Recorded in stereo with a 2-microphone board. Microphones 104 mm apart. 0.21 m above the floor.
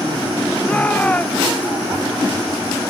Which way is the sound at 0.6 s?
15° left (ahead or behind).